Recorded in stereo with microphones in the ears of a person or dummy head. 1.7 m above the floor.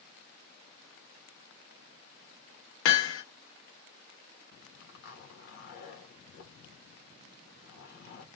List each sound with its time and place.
2.9 s hammering: 70° left (ahead or behind), 1.1 m
4.8 s a zipper: 55° left (ahead or behind), 1.6 m